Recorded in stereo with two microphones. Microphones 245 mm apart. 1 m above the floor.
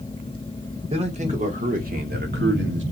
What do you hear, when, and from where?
0.9 s a man speaking: 25° right (ahead or behind), 3 m; by 2.8 s 50° right (ahead or behind), 2 m